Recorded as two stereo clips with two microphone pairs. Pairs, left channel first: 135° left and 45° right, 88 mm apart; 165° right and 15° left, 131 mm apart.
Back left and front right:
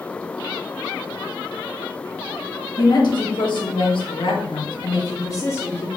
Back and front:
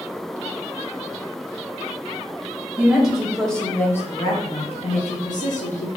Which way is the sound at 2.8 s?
100° left.